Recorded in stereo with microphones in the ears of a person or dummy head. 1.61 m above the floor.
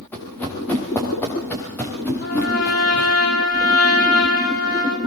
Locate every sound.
0.1 s running footsteps: 10° left (ahead or behind), 9 m
2.2 s a trumpet: 55° left (ahead or behind), 8 m